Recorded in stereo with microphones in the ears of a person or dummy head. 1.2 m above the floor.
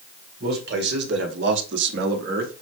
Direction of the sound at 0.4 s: 50° right (ahead or behind).